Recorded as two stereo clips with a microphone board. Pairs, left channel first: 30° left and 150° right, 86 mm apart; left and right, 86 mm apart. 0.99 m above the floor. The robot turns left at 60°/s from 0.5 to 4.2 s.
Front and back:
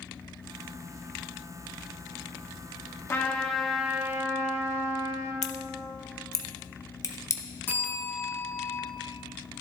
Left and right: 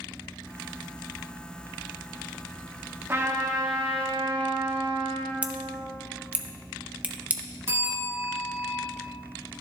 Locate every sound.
3.1 s a trumpet: 25° right, 1.6 m; by 5.3 s 90° right, 1.6 m
5.4 s scissors: 15° right, 0.9 m
7.7 s a bell: 30° right, 4.5 m